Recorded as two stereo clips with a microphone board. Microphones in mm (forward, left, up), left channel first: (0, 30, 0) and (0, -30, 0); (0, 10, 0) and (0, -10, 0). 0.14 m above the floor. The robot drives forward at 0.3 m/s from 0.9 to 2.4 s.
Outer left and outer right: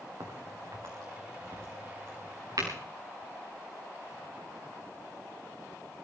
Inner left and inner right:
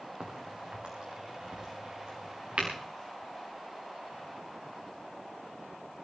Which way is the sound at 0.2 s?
85° right.